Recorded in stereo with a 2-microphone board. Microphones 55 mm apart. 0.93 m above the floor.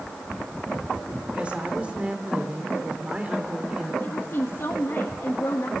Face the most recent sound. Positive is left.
turn(degrees=55)  # may be behind; listen again after turning